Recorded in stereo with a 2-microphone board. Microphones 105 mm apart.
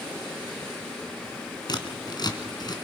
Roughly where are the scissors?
Left.